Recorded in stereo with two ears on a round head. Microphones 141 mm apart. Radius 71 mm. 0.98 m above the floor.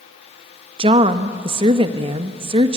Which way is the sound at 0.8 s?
35° right (ahead or behind).